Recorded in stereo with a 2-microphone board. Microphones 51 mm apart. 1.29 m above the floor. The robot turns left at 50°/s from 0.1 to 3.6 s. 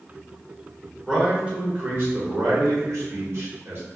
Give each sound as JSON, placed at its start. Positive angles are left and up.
{"t": 1.1, "sound": "a man speaking", "azimuth_deg": -5, "distance_m": 1.4}